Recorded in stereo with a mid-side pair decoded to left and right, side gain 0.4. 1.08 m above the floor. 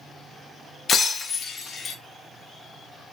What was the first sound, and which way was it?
Breaking glass, 60° left.